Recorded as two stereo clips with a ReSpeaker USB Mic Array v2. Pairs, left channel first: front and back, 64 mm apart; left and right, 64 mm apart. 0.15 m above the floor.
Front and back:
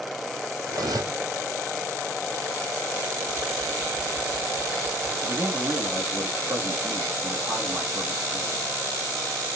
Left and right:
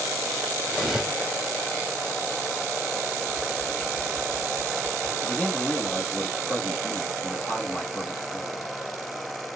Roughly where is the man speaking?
Behind left.